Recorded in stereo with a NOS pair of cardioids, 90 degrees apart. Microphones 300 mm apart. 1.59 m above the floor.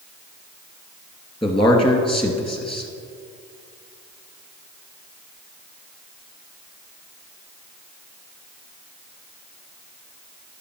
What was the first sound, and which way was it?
A man speaking, 15° left.